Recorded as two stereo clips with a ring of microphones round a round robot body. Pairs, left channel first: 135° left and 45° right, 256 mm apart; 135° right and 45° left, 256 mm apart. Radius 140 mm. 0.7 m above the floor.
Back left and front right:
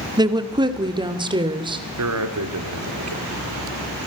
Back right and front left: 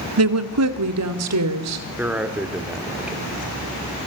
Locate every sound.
0.2 s a woman speaking: 30° left, 1.6 m; by 1.9 s 25° left, 3 m
2.0 s a man speaking: 40° right, 2.5 m